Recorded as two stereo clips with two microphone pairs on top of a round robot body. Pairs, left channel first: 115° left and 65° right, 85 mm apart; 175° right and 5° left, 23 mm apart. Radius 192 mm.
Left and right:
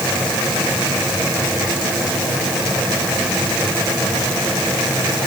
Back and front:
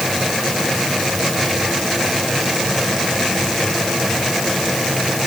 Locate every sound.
Only background noise.